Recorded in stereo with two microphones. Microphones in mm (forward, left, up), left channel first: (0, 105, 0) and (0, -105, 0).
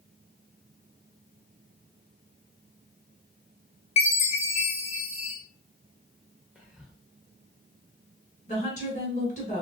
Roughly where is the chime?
Left.